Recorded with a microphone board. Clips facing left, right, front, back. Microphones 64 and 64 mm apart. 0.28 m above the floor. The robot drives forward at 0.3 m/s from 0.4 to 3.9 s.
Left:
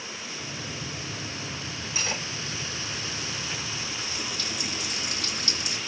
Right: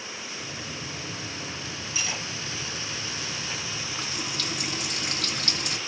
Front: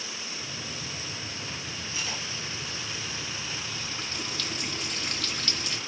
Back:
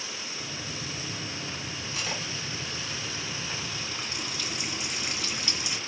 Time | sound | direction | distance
1.9 | cutlery clinking | 150° left | 4 m
3.8 | a running tap | 105° right | 1.8 m